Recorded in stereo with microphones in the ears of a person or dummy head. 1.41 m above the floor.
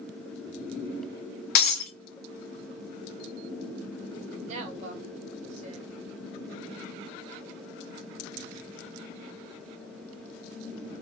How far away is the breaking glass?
About 1.1 m.